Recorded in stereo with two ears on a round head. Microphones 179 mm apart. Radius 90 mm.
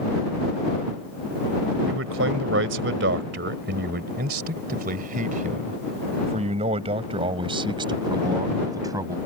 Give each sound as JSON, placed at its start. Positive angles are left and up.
{"t": 1.9, "sound": "a man speaking", "side_deg": -75}